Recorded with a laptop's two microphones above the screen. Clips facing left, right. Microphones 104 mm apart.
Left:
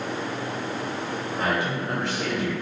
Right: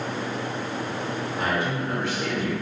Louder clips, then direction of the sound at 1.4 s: Left 1 dB; 55° left (ahead or behind).